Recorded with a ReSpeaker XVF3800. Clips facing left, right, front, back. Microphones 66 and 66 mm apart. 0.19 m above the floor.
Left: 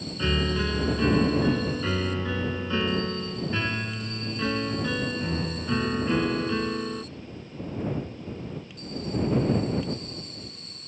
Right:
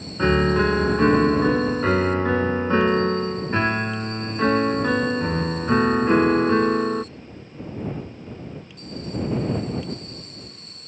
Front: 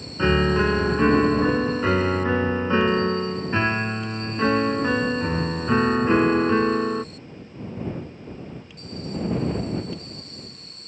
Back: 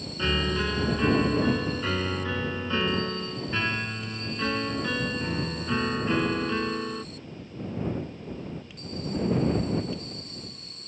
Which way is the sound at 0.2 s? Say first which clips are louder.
Right 9 dB, front 8 dB; 50° right.